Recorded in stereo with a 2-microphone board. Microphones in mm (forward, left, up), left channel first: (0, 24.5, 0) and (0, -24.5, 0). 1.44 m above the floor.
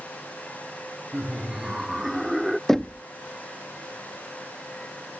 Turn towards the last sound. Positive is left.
turn(degrees=10)  # may be behind; listen again after turning